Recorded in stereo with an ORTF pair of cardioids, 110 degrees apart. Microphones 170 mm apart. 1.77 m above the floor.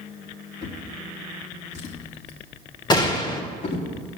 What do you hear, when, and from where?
0.6 s a drawer: 50° left, 3 m
2.9 s a gunshot: 25° left, 2.5 m